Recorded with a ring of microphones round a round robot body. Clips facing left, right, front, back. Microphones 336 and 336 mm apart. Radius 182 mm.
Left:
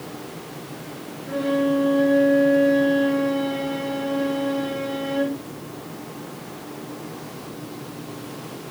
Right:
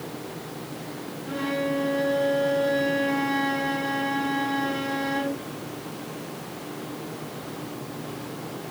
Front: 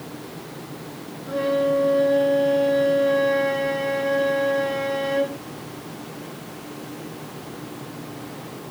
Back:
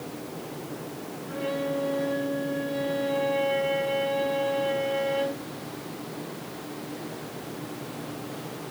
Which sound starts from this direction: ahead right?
A violin, at 1.3 s.